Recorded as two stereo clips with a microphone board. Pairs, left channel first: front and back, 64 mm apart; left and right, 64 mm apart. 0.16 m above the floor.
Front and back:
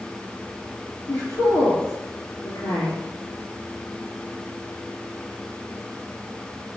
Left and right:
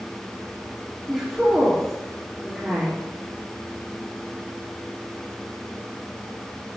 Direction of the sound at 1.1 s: 5° right.